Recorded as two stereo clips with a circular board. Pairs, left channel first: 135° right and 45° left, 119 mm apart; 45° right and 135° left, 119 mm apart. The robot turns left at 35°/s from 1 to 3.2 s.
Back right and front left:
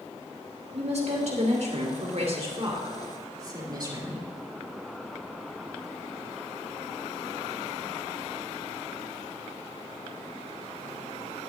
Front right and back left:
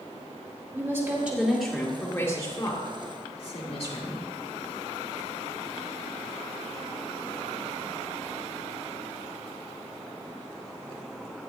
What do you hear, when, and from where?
0.7 s a woman speaking: 70° left, 3 m; by 4.2 s 10° right, 3 m